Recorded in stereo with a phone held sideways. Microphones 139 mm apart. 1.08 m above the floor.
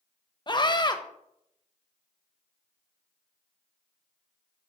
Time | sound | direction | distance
0.5 | a scream | 30° left (ahead or behind) | 1.1 m